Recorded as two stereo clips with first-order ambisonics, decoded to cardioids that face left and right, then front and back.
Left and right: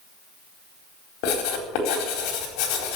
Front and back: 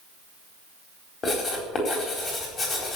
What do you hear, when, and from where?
1.2 s writing: 70° left, 4 m